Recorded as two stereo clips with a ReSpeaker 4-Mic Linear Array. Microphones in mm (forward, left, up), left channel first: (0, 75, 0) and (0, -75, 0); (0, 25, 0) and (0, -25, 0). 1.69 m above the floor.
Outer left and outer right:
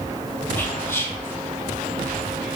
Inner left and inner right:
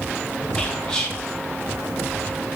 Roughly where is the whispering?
Centre.